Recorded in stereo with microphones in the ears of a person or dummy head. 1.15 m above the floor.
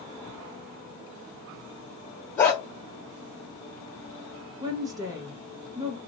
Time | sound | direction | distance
2.4 | a dog barking | 25° left (ahead or behind) | 0.7 m
4.6 | a woman speaking | 25° right (ahead or behind) | 0.7 m